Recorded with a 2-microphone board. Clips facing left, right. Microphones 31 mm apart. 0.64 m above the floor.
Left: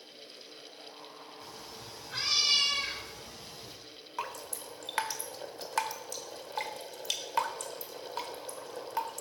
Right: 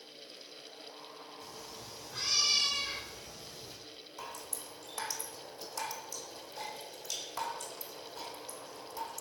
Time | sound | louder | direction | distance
1.4 | a cat meowing | left 2 dB | 40° left (ahead or behind) | 2 m
4.2 | dripping | left 7 dB | 70° left (ahead or behind) | 1.2 m